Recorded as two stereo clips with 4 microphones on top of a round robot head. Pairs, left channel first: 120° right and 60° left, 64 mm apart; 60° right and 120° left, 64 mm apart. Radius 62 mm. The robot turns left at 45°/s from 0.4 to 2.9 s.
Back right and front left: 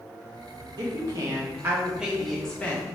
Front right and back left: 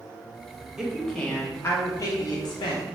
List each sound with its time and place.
0.8 s a woman speaking: 35° left, 0.7 m; by 2.9 s 55° right, 0.7 m